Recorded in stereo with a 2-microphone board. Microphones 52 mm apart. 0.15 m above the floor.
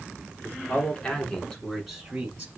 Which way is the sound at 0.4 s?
35° left (ahead or behind).